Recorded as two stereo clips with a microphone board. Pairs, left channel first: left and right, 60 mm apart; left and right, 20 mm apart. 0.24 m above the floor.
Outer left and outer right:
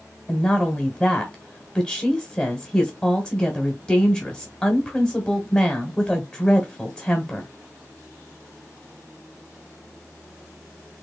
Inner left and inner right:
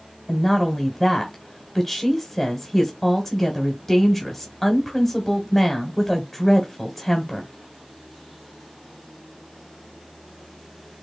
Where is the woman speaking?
15° left (ahead or behind), 1.2 m.